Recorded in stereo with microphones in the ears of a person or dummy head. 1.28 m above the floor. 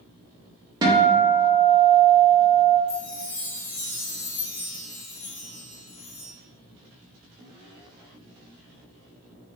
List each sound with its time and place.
0.8 s a guitar: 25° right (ahead or behind), 0.6 m
2.9 s a chime: 35° left (ahead or behind), 0.6 m